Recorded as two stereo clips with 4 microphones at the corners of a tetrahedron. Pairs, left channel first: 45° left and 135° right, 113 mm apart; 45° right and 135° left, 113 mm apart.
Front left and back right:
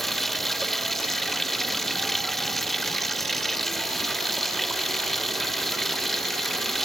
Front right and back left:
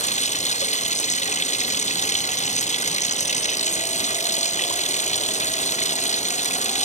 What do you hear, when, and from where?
0.0 s running water: 40° right